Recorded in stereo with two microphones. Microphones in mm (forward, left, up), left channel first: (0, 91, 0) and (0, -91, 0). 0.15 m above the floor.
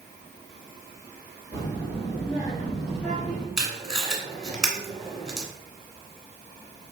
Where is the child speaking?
5° right (ahead or behind), 1.9 m; by 3.5 s 10° left (ahead or behind), 1.1 m.